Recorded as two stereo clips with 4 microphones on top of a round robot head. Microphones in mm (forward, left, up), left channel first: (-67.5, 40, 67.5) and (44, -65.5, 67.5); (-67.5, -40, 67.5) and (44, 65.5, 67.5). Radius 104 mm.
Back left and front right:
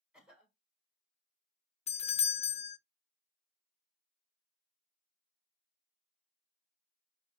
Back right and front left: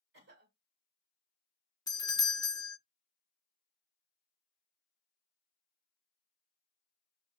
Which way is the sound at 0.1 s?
40° left.